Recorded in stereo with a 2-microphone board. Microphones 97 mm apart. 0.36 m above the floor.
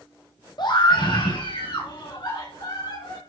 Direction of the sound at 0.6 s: 50° left (ahead or behind).